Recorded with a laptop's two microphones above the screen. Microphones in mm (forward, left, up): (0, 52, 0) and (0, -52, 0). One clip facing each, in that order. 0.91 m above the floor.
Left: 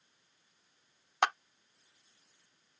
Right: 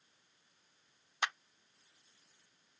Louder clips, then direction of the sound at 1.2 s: Left 9 dB; 70° left (ahead or behind).